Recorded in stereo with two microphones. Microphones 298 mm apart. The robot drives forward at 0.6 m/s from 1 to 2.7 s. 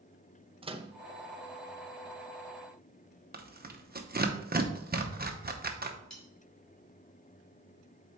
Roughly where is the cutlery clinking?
Left.